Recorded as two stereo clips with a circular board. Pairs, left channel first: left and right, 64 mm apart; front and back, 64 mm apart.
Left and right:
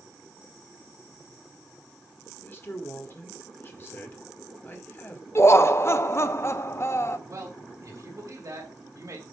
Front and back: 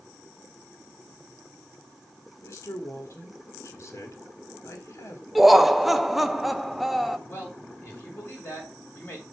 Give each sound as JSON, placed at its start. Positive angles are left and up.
{"t": 2.4, "sound": "a man speaking", "azimuth_deg": 35, "distance_m": 1.7}
{"t": 5.3, "sound": "laughter", "azimuth_deg": 95, "distance_m": 0.6}
{"t": 7.3, "sound": "a man speaking", "azimuth_deg": -55, "distance_m": 4.0}